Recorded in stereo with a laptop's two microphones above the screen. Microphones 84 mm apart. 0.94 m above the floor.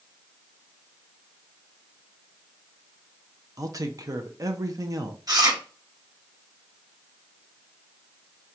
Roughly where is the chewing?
Right.